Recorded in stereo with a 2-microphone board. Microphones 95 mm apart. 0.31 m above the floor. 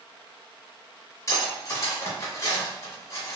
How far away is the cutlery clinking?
About 1.4 m.